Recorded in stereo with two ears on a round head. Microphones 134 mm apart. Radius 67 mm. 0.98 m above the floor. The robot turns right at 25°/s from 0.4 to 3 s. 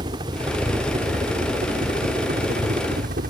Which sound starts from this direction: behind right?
A helicopter, at 0.0 s.